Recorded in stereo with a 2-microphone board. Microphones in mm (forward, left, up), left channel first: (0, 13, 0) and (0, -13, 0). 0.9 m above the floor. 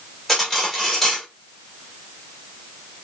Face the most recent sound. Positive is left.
turn(degrees=10)  # may be behind; listen again after turning